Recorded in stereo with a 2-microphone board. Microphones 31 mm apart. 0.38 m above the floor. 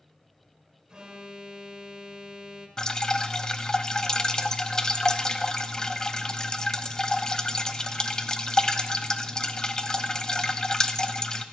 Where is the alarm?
25° right (ahead or behind), 1.3 m.